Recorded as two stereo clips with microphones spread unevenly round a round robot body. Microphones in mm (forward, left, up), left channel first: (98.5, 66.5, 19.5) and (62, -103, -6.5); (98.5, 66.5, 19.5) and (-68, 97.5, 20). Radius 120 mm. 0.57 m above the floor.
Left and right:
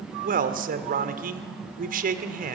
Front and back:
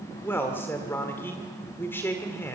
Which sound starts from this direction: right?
A man speaking, at 0.2 s.